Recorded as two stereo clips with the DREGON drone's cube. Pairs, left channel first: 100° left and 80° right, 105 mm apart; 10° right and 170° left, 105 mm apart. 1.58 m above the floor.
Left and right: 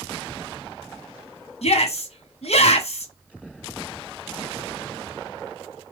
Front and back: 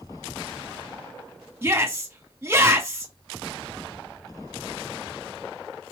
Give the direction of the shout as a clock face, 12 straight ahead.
9 o'clock.